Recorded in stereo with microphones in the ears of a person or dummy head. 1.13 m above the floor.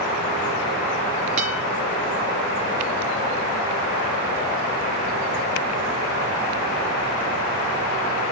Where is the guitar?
35° right (ahead or behind), 5 m.